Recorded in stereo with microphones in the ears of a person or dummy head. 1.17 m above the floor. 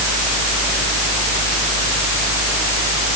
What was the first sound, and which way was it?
Only background noise.